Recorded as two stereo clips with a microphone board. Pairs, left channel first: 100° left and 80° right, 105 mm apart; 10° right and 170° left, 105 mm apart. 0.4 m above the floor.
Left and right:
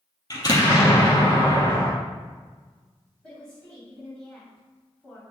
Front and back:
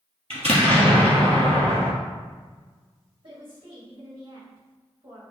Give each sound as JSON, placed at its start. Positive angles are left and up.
{"t": 0.3, "sound": "an explosion", "azimuth_deg": 155, "distance_m": 2.5}
{"t": 3.2, "sound": "a woman speaking", "azimuth_deg": 180, "distance_m": 2.0}